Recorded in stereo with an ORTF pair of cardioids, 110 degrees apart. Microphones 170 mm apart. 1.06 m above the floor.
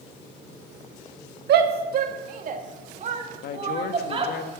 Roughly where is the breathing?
No breathing in this recording.